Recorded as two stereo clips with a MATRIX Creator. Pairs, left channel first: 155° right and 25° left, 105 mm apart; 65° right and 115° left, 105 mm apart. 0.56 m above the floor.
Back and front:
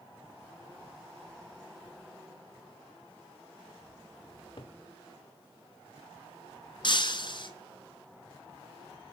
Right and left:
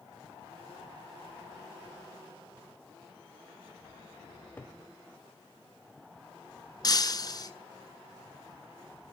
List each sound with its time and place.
4.3 s a cupboard door: 135° right, 2 m
6.8 s breaking glass: 115° right, 1.2 m